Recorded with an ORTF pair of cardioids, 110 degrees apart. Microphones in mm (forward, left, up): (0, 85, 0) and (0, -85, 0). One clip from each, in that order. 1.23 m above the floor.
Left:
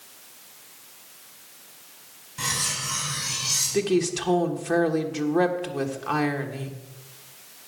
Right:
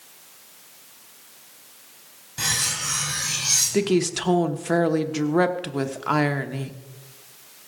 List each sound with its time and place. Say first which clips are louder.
2.4 s cutlery clinking: right 3 dB; 50° right, 4 m
3.7 s a woman speaking: right 1 dB; 25° right, 1.1 m